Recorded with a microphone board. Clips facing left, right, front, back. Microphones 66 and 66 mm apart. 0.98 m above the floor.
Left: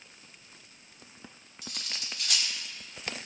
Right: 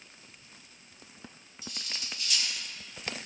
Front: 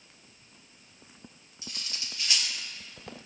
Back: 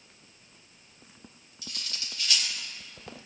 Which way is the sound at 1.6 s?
65° left.